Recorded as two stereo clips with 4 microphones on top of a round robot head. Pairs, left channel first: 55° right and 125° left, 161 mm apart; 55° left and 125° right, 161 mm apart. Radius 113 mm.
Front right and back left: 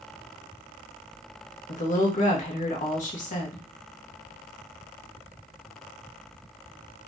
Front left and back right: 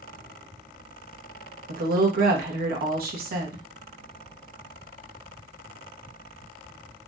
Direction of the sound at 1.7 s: 95° right.